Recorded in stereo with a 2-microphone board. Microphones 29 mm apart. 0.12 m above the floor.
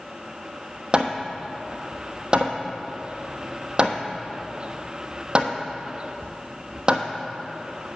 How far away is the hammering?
About 0.9 m.